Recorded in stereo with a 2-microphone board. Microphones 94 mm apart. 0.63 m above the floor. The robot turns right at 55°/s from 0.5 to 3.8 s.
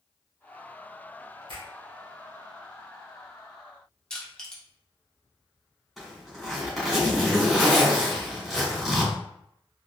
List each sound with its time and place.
1.5 s a finger snap: 60° right (ahead or behind), 2.0 m; by 1.7 s 65° right (ahead or behind), 2.0 m
4.1 s crushing: 5° left (ahead or behind), 1.1 m
6.0 s a zipper: centre (ahead or behind), 2.0 m